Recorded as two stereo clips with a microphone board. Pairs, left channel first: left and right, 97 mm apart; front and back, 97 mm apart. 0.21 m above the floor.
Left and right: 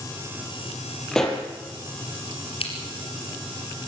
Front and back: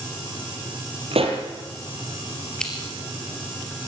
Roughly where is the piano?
I don't hear a piano.